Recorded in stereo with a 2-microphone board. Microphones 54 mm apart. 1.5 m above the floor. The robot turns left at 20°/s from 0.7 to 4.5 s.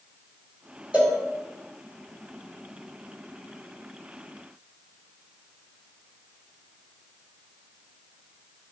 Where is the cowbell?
20° right (ahead or behind), 1.4 m; by 1.2 s 25° right (ahead or behind), 1.4 m.